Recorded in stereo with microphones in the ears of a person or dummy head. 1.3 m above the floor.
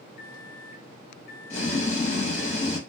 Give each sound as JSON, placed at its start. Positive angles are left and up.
{"t": 0.2, "sound": "a microwave", "side_deg": 60, "distance_m": 0.6}
{"t": 1.5, "sound": "boiling", "side_deg": 40, "distance_m": 1.2}